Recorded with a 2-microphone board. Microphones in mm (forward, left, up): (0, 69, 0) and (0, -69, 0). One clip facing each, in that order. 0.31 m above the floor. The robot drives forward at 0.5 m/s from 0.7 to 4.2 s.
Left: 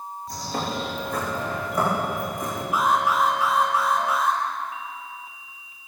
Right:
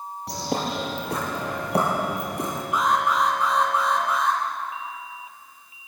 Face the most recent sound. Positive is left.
turn(degrees=5)  # may be behind; listen again after turning